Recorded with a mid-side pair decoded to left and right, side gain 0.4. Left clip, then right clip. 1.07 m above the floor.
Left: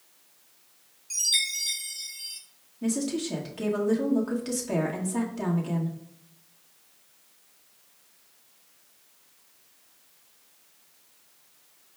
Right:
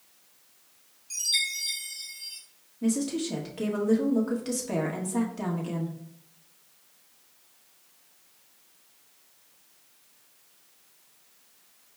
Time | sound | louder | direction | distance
1.1 | a chime | left 2 dB | 30° left | 1.7 m
2.8 | a woman speaking | even | straight ahead | 1.5 m